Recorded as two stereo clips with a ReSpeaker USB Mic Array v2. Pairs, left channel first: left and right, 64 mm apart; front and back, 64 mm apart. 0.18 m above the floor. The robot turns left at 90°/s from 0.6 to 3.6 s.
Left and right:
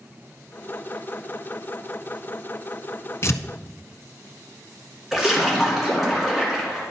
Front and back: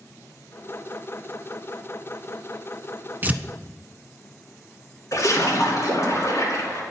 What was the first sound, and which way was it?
Tearing paper, 125° left.